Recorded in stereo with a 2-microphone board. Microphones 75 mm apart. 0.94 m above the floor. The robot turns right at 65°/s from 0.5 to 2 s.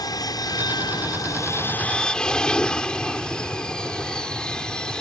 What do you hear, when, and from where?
0.0 s an aircraft: 70° left; by 5.0 s 170° left